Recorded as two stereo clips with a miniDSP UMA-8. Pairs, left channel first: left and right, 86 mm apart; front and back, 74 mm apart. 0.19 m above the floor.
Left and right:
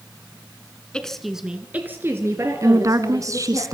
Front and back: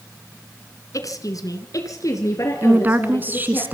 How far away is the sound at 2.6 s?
About 1.7 m.